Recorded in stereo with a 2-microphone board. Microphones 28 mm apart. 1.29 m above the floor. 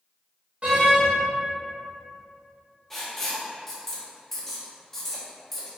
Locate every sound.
0.6 s a door slam: 50° right (ahead or behind), 1.3 m
2.9 s writing: 10° left (ahead or behind), 0.8 m